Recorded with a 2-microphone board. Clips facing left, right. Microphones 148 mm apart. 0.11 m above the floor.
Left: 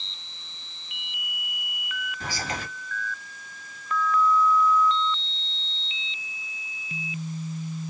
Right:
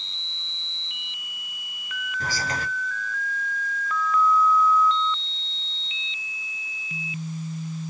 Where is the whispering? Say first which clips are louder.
Right 3 dB; 35° right (ahead or behind), 1.9 m.